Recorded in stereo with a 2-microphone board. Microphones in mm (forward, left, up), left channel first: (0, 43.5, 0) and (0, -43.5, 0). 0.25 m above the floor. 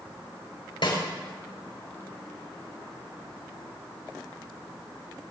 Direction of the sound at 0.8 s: 70° left (ahead or behind).